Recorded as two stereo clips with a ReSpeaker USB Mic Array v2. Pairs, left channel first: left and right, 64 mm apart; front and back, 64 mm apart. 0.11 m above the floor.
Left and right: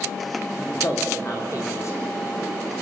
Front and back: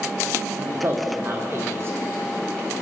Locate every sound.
0.6 s a man speaking: 130° left, 6 m